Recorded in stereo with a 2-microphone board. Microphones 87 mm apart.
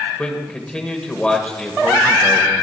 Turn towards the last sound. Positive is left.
turn(degrees=10)  # may be behind; listen again after turning